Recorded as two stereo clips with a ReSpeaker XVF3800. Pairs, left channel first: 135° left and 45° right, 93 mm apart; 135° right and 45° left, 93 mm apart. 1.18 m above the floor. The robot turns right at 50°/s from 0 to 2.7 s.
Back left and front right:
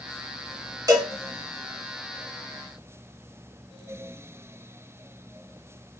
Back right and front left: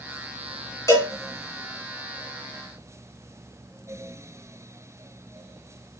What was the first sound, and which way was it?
A cowbell, 90° right.